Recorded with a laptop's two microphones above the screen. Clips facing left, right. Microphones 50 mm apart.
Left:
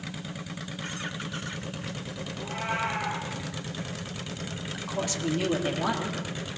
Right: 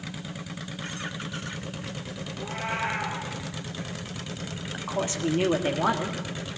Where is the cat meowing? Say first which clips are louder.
Even; 35° right (ahead or behind), 5.5 m.